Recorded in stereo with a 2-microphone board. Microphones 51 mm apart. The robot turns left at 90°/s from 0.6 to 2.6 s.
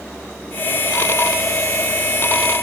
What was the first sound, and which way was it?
Only background noise.